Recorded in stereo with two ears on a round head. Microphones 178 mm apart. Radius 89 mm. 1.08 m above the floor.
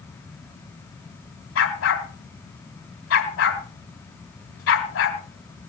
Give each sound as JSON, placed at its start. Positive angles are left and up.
{"t": 1.6, "sound": "a dog barking", "side_deg": 75, "distance_m": 3.5}